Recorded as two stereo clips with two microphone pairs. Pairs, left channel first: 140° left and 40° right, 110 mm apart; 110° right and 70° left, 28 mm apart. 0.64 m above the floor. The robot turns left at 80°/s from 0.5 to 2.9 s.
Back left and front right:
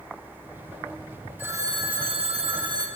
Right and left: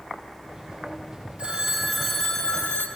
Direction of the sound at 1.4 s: 30° left.